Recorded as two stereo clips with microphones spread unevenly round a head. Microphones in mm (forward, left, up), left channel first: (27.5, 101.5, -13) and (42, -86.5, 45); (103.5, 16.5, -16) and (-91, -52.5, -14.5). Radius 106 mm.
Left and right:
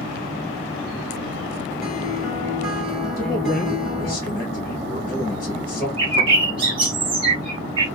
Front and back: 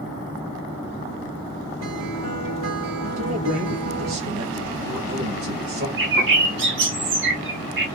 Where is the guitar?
Straight behind, 1.9 m.